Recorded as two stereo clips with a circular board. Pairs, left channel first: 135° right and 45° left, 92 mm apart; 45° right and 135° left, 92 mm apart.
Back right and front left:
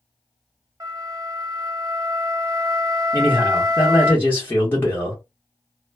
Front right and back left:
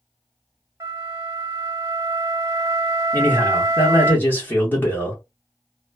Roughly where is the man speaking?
Right.